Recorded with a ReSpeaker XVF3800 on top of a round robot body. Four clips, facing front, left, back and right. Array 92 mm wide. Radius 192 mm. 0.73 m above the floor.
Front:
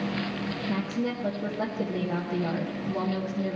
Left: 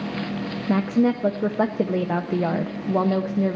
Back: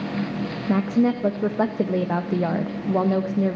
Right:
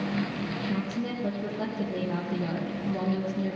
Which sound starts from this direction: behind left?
A woman speaking, at 0.7 s.